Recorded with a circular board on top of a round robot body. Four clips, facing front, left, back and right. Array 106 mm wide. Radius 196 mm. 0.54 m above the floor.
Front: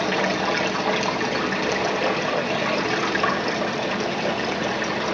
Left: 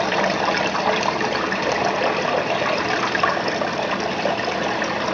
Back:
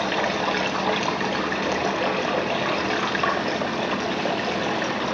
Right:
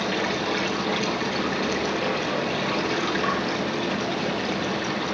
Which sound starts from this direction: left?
Running water, at 0.0 s.